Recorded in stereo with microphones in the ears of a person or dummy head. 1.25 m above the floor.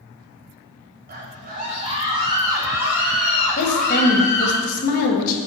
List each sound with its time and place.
1.1 s a scream: 45° right (ahead or behind), 1.6 m; by 4.6 s 20° left (ahead or behind), 2.5 m
3.6 s a woman speaking: 50° left (ahead or behind), 1.1 m